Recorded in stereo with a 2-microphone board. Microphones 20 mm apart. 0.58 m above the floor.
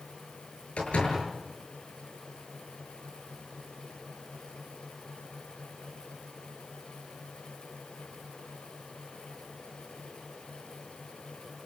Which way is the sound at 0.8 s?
85° left.